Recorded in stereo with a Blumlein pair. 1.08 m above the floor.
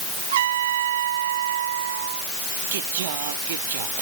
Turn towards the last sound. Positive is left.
turn(degrees=-55)